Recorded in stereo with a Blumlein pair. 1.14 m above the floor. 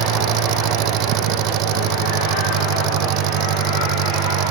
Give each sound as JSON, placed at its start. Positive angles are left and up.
{"t": 0.0, "sound": "an engine running", "azimuth_deg": -40}